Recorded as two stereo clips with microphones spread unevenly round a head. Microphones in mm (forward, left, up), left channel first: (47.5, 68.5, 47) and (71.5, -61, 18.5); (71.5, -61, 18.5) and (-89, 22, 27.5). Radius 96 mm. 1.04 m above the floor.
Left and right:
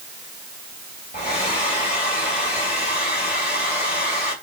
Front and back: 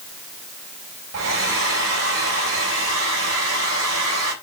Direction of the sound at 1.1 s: 160° left.